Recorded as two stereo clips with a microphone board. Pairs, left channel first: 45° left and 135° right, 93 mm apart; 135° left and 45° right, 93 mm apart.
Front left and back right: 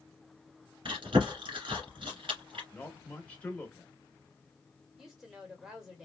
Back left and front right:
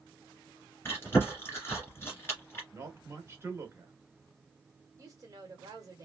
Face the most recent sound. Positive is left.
turn(degrees=-50)